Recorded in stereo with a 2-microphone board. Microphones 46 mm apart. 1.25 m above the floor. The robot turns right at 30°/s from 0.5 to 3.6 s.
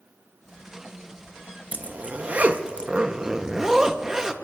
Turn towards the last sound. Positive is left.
turn(degrees=-20)